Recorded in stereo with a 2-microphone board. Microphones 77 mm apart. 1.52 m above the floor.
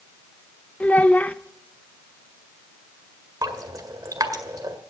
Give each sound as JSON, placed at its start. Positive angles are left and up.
{"t": 0.8, "sound": "a child speaking", "side_deg": 20, "distance_m": 0.7}
{"t": 3.4, "sound": "dripping", "side_deg": -50, "distance_m": 1.8}